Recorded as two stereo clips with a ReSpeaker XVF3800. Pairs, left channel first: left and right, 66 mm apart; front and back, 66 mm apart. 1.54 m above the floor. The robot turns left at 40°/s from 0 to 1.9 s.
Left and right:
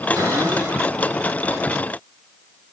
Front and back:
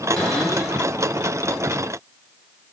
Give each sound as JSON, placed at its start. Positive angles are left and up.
{"t": 0.2, "sound": "a cupboard door", "azimuth_deg": -80, "distance_m": 3.5}